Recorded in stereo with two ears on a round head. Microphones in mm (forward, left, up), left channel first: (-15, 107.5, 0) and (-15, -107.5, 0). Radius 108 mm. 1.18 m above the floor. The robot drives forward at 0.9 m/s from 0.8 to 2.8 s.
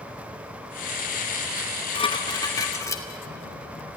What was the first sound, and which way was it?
Dishes clattering, 35° left (ahead or behind).